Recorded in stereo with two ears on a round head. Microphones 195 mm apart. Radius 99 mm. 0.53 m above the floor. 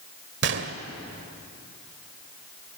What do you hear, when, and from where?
0.4 s a gunshot: 55° right (ahead or behind), 1.5 m